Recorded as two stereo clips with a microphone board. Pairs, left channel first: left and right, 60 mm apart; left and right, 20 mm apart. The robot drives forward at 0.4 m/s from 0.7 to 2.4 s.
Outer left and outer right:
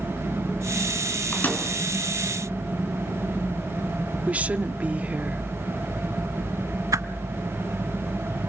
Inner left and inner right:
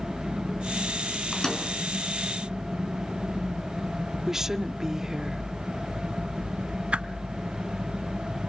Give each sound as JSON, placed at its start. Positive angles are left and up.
{"t": 1.3, "sound": "a microwave", "side_deg": 30, "distance_m": 4.5}
{"t": 4.3, "sound": "a woman speaking", "side_deg": -25, "distance_m": 0.9}
{"t": 6.9, "sound": "a whoosh", "side_deg": -65, "distance_m": 0.7}